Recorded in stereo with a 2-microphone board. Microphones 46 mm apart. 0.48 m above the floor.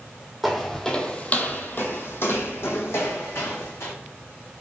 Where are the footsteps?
Centre (ahead or behind), 0.8 m; by 3.9 s 65° left (ahead or behind), 1.6 m.